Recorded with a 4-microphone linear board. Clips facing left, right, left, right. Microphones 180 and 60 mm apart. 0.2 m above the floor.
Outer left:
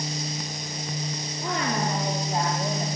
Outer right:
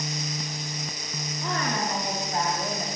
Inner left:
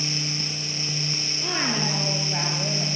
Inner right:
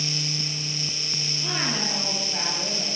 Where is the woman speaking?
15° left (ahead or behind), 6 m; by 2.9 s 35° left (ahead or behind), 6.5 m.